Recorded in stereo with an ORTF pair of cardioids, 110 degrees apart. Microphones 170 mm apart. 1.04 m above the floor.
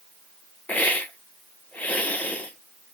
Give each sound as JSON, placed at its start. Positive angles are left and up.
{"t": 0.7, "sound": "a hiss", "azimuth_deg": 10, "distance_m": 0.8}